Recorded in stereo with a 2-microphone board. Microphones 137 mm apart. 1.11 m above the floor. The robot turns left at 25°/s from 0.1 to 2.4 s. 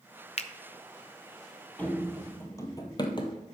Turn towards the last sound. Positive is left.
turn(degrees=40)  # may be behind; listen again after turning